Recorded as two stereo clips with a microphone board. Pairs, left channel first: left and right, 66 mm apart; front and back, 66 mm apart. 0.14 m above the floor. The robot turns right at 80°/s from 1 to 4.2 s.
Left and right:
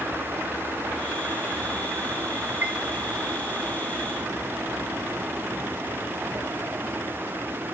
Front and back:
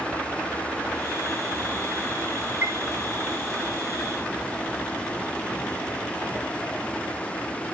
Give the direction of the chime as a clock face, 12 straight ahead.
4 o'clock.